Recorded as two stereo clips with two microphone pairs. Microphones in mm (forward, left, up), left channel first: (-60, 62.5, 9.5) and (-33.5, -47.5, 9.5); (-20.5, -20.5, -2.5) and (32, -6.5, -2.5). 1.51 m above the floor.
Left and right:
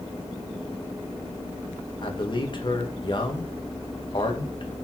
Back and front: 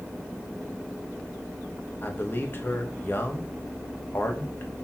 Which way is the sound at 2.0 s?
150° left.